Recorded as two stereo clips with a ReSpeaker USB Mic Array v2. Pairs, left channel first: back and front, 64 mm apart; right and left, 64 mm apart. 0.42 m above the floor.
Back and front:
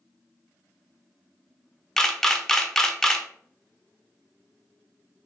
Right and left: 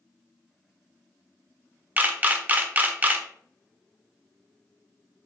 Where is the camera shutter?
105° left, 0.5 m.